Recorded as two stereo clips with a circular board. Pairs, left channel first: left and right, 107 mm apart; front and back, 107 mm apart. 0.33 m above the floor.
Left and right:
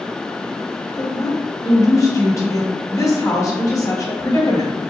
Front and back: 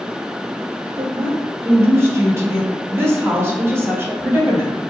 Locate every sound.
1.0 s a woman speaking: 130° left, 1.7 m